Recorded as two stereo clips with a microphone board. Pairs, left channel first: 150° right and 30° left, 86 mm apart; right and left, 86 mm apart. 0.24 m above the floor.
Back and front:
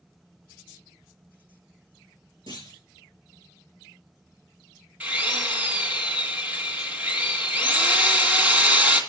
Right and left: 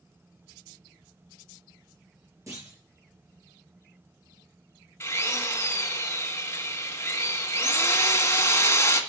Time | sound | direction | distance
2.5 | a clunk | 40° left | 4.5 m
5.0 | a drill | 35° right | 2 m